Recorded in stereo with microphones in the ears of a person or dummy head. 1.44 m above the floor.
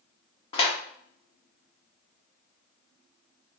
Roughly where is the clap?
Left.